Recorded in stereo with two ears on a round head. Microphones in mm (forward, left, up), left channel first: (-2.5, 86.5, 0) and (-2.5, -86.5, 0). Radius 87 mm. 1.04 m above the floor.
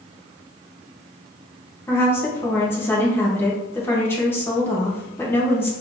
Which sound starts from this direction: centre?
A woman speaking, at 1.9 s.